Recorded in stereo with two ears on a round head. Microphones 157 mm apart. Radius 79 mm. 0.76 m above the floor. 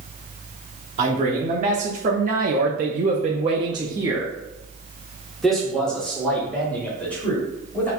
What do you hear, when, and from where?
1.0 s a man speaking: 35° right (ahead or behind), 1.5 m; by 7.9 s 10° left (ahead or behind), 3 m